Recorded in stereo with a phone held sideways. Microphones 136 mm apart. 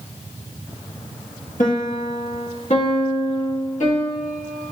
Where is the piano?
70° left (ahead or behind), 1.7 m.